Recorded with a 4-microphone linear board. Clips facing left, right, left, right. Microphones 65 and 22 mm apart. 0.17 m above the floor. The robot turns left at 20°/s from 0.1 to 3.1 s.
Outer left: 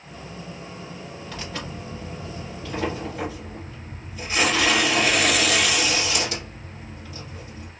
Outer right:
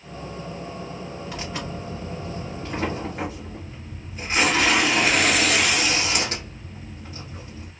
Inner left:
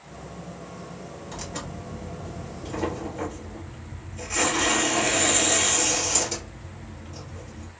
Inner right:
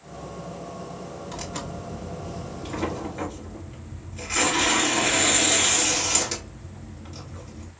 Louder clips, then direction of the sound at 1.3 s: Outer right 1 dB, inner right 1 dB; 10° right (ahead or behind).